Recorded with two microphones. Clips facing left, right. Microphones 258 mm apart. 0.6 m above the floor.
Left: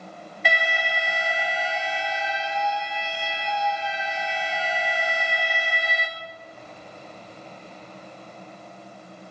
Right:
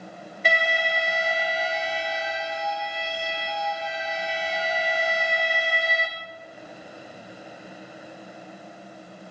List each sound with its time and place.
0.5 s an alarm: 40° right (ahead or behind), 1.4 m